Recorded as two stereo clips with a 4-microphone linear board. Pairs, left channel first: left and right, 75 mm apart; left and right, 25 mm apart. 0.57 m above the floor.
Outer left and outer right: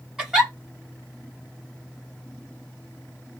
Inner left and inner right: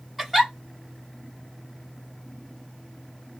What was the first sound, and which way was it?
A giggle, 5° right (ahead or behind).